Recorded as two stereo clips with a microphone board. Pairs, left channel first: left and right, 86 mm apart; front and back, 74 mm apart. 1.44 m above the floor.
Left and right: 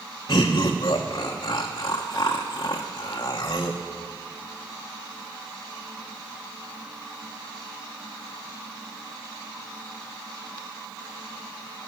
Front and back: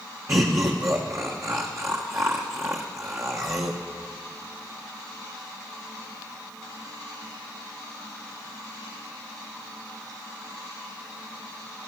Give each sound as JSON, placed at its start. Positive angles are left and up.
{"t": 0.3, "sound": "laughter", "azimuth_deg": 130, "distance_m": 0.9}